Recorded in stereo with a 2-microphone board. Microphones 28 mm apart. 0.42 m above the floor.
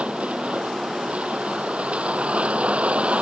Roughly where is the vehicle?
Right.